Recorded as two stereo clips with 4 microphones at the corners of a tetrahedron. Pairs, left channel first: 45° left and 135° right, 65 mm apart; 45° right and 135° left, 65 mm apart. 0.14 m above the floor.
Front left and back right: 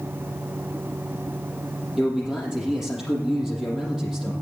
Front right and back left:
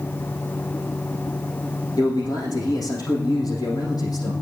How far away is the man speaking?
About 5.5 m.